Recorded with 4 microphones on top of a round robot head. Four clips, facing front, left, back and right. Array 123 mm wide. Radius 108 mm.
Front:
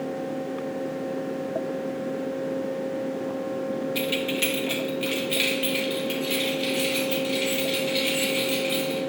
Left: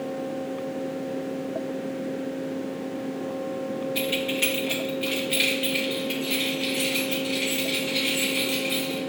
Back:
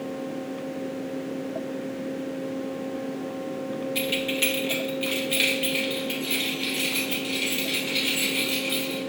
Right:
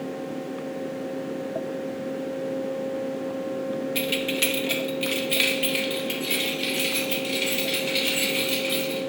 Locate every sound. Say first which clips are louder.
4.0 s keys jangling: even, front 1 dB; 85° right, 0.6 m